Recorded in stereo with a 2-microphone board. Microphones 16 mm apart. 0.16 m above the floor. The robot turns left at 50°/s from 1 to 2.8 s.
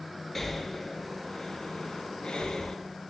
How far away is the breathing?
About 0.7 m.